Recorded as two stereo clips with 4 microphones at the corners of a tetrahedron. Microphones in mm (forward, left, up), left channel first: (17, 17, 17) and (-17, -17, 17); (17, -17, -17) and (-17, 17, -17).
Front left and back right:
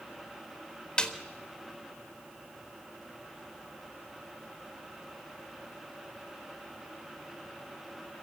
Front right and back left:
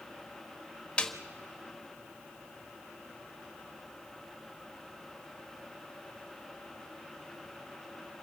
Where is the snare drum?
Straight ahead, 1.3 m.